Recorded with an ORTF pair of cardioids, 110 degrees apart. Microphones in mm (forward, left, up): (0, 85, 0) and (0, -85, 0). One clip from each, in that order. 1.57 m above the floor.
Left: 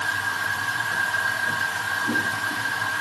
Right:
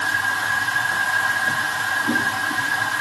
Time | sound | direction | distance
0.0 | a machine running | 30° right | 0.7 m